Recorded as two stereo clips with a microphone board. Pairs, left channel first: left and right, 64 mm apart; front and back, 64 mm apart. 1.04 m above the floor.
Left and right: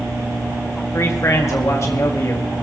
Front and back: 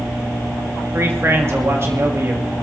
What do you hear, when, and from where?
0.9 s a man speaking: 130° left, 1.6 m